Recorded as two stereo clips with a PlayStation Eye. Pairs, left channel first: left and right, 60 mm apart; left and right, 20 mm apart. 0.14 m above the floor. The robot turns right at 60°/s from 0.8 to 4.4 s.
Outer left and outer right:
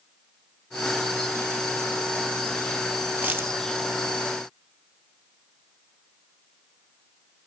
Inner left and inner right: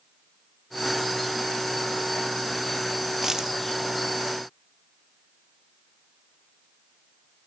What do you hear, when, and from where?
3.2 s a dropped coin: 25° right (ahead or behind), 0.9 m; by 3.6 s 45° right (ahead or behind), 0.9 m